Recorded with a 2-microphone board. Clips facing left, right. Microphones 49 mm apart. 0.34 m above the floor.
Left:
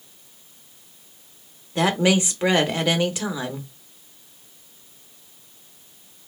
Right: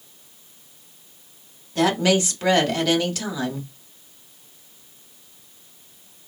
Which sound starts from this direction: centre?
A woman speaking, at 1.8 s.